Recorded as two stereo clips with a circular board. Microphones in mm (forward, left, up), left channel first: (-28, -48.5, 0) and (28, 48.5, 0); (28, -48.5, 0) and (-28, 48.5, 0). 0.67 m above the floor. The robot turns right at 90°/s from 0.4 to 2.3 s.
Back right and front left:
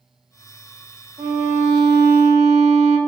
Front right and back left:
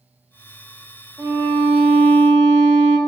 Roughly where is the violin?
Ahead left.